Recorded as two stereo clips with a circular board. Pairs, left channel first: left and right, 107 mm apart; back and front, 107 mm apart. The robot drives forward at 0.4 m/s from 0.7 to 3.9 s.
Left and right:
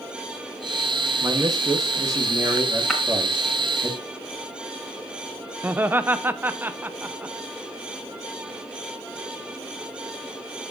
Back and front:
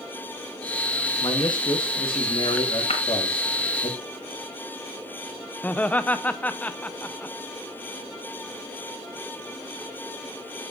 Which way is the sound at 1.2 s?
140° right.